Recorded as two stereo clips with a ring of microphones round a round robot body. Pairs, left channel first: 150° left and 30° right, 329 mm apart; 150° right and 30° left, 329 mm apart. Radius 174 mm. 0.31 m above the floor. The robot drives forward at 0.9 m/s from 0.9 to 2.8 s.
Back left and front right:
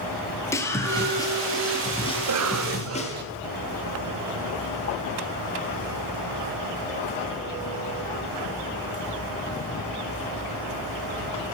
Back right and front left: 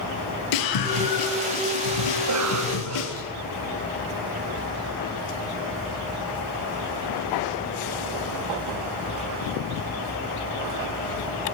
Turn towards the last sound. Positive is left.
turn(degrees=0)